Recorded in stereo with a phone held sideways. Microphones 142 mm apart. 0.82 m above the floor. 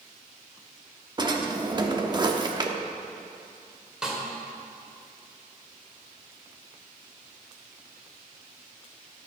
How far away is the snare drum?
About 2.5 m.